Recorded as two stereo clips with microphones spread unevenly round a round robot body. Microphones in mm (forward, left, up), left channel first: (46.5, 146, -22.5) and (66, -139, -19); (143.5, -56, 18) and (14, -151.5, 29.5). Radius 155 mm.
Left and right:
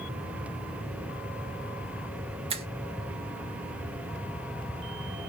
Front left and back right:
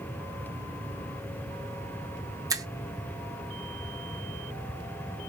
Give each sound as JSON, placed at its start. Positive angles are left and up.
{"t": 2.5, "sound": "a finger snap", "azimuth_deg": -110, "distance_m": 0.6}